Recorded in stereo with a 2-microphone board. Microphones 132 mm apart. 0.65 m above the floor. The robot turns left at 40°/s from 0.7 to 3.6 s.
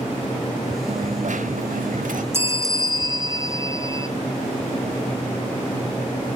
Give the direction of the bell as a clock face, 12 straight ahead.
1 o'clock.